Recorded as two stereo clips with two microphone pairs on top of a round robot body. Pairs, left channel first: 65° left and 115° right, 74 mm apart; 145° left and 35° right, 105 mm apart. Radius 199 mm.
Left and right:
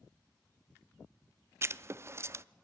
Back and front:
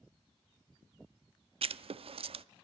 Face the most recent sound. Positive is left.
turn(degrees=-60)